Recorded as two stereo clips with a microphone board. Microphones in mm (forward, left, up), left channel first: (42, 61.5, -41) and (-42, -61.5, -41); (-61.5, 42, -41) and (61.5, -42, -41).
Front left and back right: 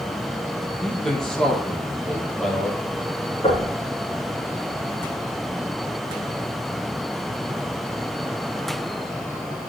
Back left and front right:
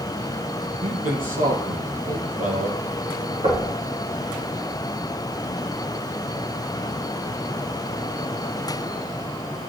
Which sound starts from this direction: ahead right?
A man speaking, at 0.8 s.